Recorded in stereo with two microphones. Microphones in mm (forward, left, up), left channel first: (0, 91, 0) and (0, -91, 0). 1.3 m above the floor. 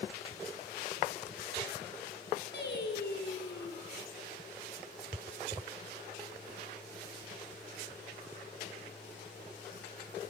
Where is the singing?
70° left (ahead or behind), 4.5 m.